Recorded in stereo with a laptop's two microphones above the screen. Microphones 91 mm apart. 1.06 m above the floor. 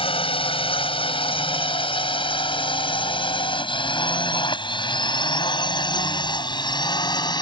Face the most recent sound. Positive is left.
turn(degrees=50)  # may be behind; listen again after turning